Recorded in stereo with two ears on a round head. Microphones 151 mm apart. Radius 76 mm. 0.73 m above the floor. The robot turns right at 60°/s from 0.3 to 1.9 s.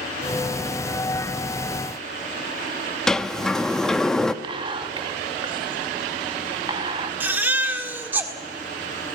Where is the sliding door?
5° left (ahead or behind), 0.6 m.